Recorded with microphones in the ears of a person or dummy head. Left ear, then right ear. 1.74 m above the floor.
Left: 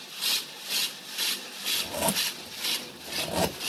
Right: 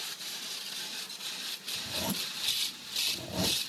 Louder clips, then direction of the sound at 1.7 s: Left 7 dB; 40° left (ahead or behind).